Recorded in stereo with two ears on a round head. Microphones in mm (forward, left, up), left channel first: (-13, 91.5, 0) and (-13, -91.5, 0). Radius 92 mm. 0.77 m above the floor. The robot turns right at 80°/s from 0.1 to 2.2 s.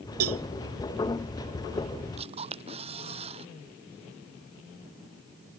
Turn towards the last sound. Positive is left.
turn(degrees=-30)  # may be behind; listen again after turning